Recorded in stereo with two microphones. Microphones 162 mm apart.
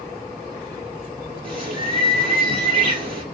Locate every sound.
1.4 s a bird: 35° right (ahead or behind), 1.8 m